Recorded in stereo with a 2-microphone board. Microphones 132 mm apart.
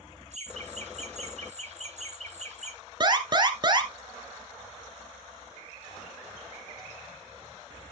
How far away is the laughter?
About 3.5 m.